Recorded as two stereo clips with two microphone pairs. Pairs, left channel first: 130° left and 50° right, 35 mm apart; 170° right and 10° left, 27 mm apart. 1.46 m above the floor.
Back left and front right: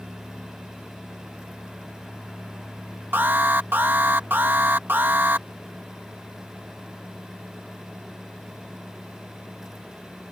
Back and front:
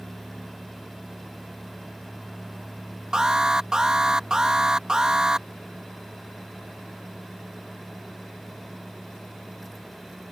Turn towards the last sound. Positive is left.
turn(degrees=-50)